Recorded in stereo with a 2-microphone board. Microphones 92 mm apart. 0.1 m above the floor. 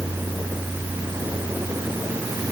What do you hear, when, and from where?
Only background noise.